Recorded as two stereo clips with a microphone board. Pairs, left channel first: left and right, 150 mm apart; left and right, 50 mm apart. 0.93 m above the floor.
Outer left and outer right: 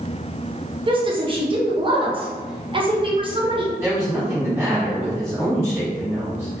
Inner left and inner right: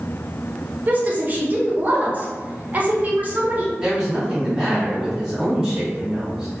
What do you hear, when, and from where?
0.9 s a woman speaking: 35° right (ahead or behind), 0.6 m
3.8 s a woman speaking: 15° right (ahead or behind), 1.4 m